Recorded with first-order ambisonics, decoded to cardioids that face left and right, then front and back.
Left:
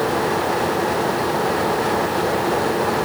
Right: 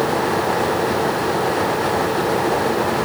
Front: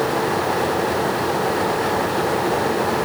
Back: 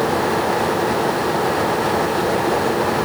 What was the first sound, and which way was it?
Only background noise.